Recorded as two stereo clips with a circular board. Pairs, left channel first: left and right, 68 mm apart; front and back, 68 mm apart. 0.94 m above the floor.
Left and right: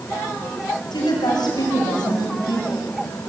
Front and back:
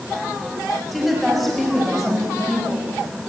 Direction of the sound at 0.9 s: 90° left.